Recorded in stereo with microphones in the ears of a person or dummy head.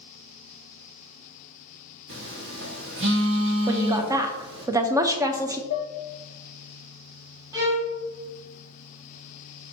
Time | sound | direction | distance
2.1 | a phone buzzing | 60° right (ahead or behind) | 0.9 m
3.7 | a woman speaking | 20° right (ahead or behind) | 0.5 m
5.7 | dishes clattering | 40° left (ahead or behind) | 0.8 m
7.5 | a violin | 20° right (ahead or behind) | 1.1 m